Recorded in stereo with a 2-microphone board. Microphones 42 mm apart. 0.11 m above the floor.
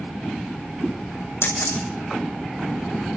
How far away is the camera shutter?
About 5.5 m.